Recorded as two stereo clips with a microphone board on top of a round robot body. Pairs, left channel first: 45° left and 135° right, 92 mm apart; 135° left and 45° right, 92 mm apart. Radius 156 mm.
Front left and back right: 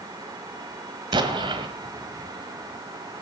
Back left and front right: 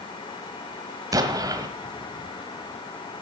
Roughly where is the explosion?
Right.